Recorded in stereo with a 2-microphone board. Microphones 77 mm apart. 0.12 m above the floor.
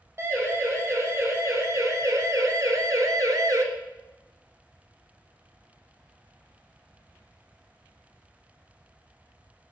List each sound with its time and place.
0.2 s a siren: 35° right (ahead or behind), 4.5 m; by 3.6 s 45° right (ahead or behind), 1.8 m